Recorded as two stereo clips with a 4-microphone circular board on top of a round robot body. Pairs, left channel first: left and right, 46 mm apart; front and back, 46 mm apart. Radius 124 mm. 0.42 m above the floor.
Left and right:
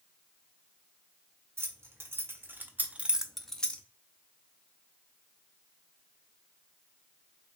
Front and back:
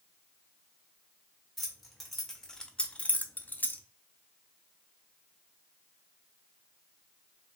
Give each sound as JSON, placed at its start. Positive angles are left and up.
{"t": 1.6, "sound": "keys jangling", "azimuth_deg": -95, "distance_m": 1.2}